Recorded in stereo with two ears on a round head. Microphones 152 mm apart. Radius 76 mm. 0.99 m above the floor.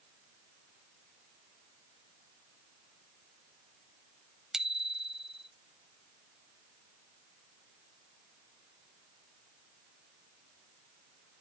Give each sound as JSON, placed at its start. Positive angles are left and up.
{"t": 4.5, "sound": "a bicycle bell", "side_deg": -5}